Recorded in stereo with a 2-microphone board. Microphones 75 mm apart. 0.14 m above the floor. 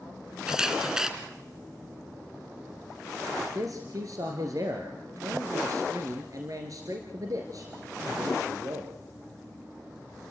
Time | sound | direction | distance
0.5 | a camera shutter | 10° right (ahead or behind) | 1.7 m
3.4 | a man speaking | 55° right (ahead or behind) | 2 m